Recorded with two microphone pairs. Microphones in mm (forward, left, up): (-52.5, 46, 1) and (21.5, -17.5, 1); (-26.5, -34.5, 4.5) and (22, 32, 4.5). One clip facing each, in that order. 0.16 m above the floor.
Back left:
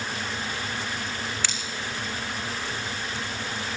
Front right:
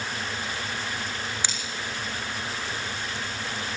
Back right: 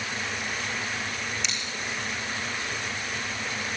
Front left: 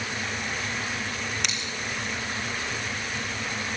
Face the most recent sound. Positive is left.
turn(degrees=30)